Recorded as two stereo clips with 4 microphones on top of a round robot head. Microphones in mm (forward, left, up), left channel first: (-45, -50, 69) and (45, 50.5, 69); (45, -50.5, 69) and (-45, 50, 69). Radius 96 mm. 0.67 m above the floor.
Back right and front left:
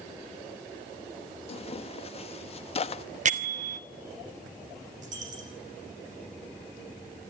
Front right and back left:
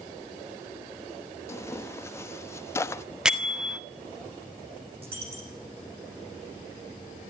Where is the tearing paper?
115° right, 0.9 m.